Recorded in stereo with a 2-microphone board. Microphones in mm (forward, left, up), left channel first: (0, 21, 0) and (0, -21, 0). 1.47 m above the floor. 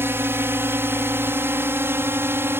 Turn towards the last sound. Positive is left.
turn(degrees=-65)  # may be behind; listen again after turning